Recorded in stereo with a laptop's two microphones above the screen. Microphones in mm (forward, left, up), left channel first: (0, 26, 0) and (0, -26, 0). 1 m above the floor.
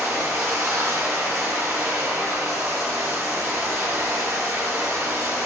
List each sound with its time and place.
0.0 s running water: 80° right, 6 m